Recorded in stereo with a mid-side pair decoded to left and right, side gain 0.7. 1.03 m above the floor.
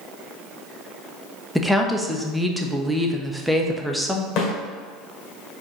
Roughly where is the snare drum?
Ahead left.